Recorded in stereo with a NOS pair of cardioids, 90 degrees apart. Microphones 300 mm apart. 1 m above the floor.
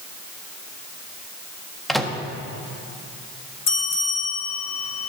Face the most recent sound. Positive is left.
turn(degrees=60)